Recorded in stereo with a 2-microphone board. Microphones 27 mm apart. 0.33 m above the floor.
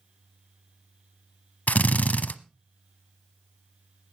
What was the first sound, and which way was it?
A drill, 70° left (ahead or behind).